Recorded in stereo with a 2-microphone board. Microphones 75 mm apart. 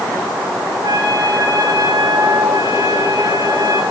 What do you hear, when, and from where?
0.8 s a trumpet: 55° right (ahead or behind), 5.5 m